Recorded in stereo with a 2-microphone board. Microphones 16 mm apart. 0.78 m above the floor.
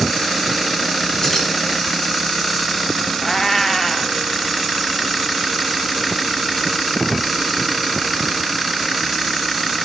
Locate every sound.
1.2 s keys jangling: 20° left (ahead or behind), 4.5 m
3.2 s a cat meowing: 15° left (ahead or behind), 0.7 m